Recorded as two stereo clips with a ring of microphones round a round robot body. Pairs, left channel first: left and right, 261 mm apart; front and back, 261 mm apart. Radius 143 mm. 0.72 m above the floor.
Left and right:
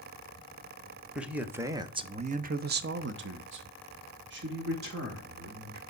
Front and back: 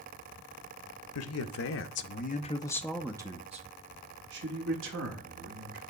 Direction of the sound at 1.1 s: 5° right.